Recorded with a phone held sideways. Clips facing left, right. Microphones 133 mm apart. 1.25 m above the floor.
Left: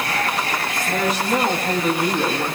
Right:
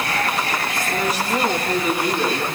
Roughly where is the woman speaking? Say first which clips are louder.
Left 3 dB; left.